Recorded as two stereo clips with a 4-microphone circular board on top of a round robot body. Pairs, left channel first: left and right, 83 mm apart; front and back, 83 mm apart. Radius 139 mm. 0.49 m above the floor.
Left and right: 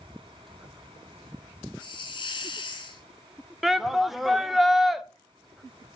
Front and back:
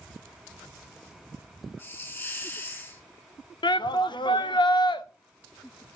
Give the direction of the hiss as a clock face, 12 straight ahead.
10 o'clock.